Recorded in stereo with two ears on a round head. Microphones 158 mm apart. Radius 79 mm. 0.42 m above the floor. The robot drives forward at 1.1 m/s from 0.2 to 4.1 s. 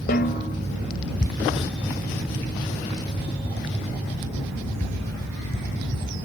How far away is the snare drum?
About 1.8 m.